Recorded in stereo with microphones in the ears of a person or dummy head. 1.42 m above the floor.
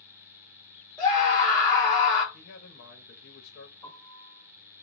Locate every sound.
1.0 s a scream: 25° left (ahead or behind), 1.3 m
2.3 s a man speaking: 60° left (ahead or behind), 0.9 m
3.8 s a piano: 5° left (ahead or behind), 1.7 m